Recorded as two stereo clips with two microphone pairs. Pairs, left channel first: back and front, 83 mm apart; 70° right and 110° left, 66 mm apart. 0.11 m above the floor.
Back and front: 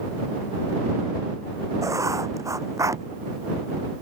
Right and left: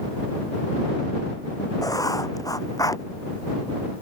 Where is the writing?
50° right.